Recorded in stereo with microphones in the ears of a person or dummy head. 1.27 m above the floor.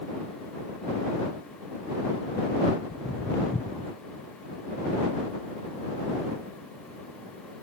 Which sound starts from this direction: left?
Footsteps, at 2.9 s.